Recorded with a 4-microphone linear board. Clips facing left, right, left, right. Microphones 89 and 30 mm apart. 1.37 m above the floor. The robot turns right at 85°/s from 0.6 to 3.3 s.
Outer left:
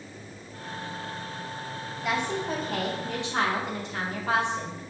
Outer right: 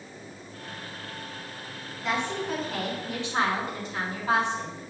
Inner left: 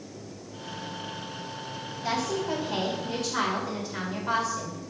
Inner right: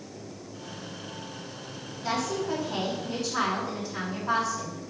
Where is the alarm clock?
No alarm clock in this recording.